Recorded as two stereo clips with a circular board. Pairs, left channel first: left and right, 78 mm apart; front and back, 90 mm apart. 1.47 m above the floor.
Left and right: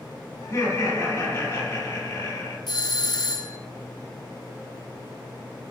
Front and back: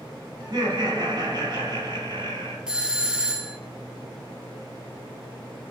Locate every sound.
0.4 s laughter: 135° left, 4.5 m
2.7 s a doorbell: 100° left, 0.7 m